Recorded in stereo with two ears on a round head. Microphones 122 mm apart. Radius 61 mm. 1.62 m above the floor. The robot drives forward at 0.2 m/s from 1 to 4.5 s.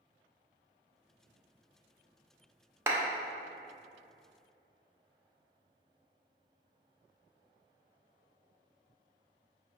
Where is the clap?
20° right (ahead or behind), 0.5 m; by 3.0 s 15° right (ahead or behind), 0.6 m.